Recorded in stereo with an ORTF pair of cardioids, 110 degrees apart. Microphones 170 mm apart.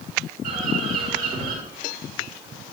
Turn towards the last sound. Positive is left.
turn(degrees=-60)